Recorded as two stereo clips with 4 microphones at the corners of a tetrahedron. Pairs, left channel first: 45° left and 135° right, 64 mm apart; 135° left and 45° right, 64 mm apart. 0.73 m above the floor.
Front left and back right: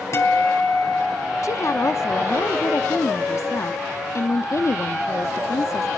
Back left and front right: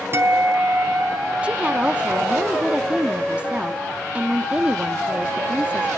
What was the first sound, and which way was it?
A guitar, 5° left.